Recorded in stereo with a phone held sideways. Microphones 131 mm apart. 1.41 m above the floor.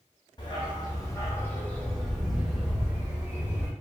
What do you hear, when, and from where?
0.4 s a dog barking: 35° left (ahead or behind), 1.0 m; by 3.7 s 15° right (ahead or behind), 1.6 m